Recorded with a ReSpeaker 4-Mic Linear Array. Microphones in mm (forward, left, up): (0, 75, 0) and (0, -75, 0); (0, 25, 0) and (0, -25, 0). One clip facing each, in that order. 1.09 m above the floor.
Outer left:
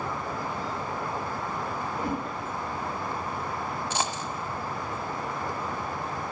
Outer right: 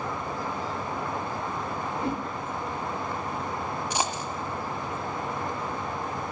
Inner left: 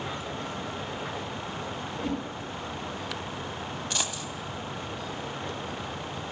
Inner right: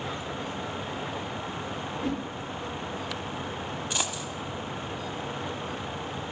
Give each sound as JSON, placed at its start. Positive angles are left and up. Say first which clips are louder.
{"t": 2.0, "sound": "a whoosh", "louder": "outer right 1 dB, even", "side_deg": -25, "distance_m": 4.0}
{"t": 3.9, "sound": "a dropped coin", "louder": "outer right 2 dB, inner right 1 dB", "side_deg": -15, "distance_m": 1.3}